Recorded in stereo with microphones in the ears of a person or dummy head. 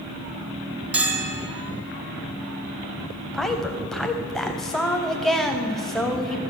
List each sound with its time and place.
0.9 s a bell: 5° right (ahead or behind), 1.0 m
3.3 s a woman speaking: centre (ahead or behind), 0.8 m